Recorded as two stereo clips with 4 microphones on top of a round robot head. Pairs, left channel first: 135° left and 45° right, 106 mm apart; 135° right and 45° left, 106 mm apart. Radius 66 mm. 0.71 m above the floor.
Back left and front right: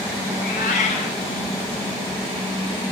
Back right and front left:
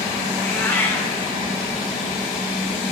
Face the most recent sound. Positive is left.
turn(degrees=150)